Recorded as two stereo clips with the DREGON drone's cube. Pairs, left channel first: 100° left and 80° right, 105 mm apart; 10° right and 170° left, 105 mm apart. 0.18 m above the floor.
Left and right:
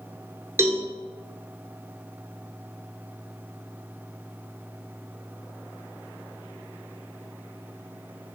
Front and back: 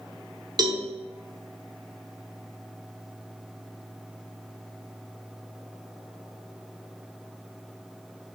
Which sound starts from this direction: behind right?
A cowbell, at 0.6 s.